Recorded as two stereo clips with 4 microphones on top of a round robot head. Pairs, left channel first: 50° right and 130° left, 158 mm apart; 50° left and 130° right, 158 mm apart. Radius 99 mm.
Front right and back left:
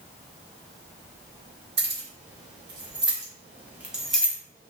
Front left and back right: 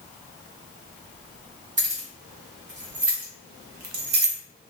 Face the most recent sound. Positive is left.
turn(degrees=-110)